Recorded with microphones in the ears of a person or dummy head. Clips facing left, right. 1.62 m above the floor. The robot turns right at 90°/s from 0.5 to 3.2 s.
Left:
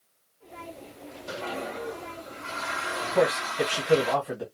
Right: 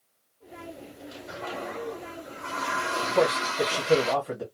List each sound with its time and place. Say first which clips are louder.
1.3 s a toilet flushing: left 2 dB; 130° left, 1.0 m; by 4.2 s 60° right, 1.0 m
3.1 s a man speaking: even; 5° left (ahead or behind), 1.2 m; by 4.5 s centre (ahead or behind), 1.2 m